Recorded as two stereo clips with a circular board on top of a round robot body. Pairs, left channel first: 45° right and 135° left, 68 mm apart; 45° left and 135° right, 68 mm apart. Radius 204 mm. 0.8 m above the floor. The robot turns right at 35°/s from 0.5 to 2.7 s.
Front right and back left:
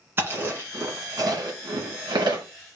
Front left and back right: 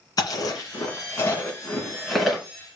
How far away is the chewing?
About 1.7 m.